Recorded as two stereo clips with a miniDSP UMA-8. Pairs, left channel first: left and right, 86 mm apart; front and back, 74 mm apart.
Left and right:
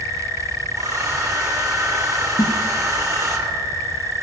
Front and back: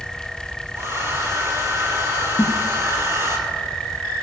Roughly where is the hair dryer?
Behind right.